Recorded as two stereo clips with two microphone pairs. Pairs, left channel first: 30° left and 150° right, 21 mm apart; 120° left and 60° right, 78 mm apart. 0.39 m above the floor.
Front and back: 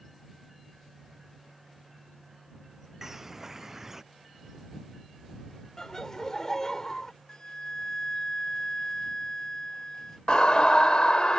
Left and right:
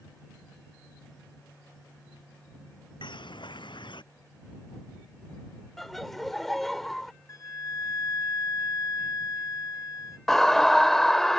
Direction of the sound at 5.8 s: 40° left.